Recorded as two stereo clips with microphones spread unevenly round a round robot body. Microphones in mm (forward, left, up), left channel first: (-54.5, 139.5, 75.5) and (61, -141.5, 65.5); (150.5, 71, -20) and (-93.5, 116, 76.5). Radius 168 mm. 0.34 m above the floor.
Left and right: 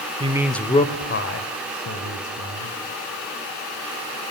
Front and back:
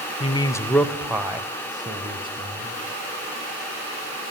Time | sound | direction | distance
0.2 | a man speaking | 10° right | 1.4 m